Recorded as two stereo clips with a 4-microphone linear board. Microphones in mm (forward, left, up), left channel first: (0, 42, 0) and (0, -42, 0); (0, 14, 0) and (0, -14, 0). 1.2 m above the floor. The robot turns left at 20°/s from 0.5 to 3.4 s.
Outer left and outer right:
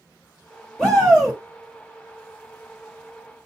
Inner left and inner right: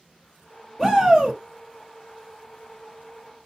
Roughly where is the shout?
Centre.